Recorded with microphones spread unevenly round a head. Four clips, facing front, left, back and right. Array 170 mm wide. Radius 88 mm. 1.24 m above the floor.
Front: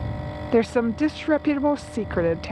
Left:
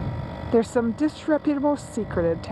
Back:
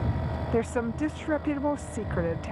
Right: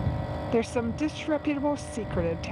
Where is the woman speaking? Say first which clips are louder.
Left 6 dB, front 8 dB; 40° left.